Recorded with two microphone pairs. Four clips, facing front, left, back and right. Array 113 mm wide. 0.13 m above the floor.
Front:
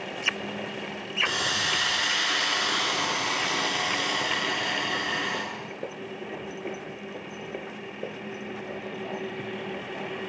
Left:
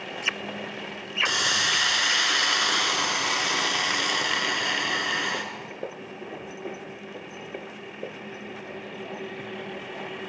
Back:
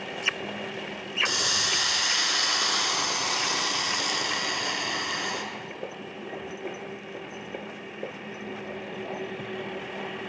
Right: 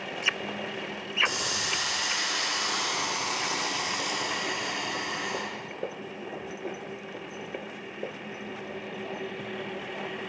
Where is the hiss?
90° left, 1.2 m.